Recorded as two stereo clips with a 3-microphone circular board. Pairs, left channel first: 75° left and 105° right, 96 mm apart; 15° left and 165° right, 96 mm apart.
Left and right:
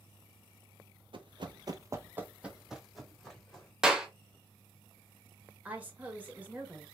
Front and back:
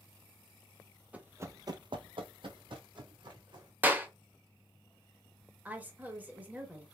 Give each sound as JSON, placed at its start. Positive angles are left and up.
{"t": 1.1, "sound": "running footsteps", "azimuth_deg": -90, "distance_m": 0.6}
{"t": 3.8, "sound": "a clap", "azimuth_deg": -175, "distance_m": 0.6}
{"t": 5.7, "sound": "a woman speaking", "azimuth_deg": -140, "distance_m": 0.8}